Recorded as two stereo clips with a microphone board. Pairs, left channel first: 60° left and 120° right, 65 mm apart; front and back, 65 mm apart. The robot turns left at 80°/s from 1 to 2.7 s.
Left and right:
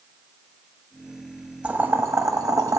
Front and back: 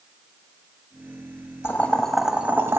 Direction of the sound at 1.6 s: 50° right.